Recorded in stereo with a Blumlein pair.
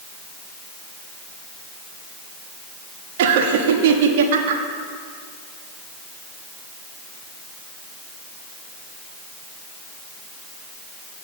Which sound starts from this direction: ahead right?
Laughter, at 3.2 s.